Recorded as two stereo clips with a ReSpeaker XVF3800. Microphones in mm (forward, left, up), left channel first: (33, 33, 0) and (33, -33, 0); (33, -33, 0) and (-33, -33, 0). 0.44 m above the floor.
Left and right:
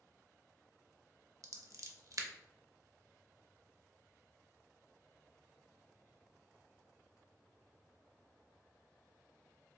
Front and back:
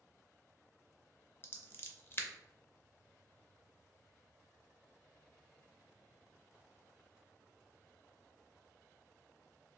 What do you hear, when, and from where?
1.4 s scissors: 55° right, 0.5 m